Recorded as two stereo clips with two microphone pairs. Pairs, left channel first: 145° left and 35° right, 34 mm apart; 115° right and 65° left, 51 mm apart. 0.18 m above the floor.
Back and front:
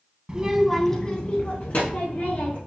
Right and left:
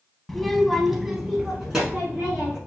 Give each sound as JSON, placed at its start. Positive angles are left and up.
{"t": 0.3, "sound": "a child speaking", "azimuth_deg": -35, "distance_m": 0.6}